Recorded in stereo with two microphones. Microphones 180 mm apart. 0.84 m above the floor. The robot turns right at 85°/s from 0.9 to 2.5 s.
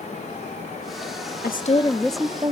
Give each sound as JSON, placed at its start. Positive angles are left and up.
{"t": 1.4, "sound": "a woman speaking", "azimuth_deg": 120, "distance_m": 0.8}